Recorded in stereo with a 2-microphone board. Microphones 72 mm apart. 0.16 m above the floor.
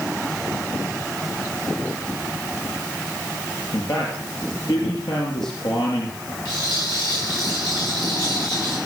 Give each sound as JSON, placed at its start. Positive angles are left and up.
{"t": 3.7, "sound": "a man speaking", "side_deg": 70, "distance_m": 4.5}
{"t": 6.5, "sound": "a rattle", "side_deg": 85, "distance_m": 9.0}